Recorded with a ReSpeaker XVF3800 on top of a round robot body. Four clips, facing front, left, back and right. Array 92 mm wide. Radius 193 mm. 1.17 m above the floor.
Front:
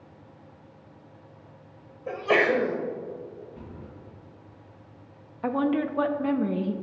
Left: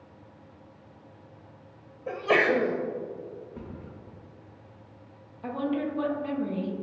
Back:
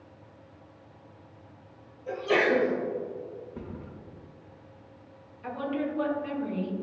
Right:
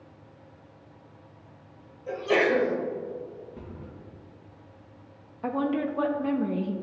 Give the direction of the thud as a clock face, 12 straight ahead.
7 o'clock.